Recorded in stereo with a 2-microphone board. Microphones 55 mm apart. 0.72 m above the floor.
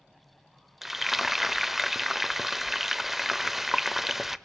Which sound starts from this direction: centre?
Frying, at 0.8 s.